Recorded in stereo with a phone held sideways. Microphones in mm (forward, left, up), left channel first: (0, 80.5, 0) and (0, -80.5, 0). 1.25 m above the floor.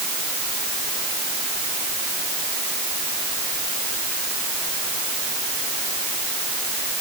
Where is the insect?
I don't hear an insect.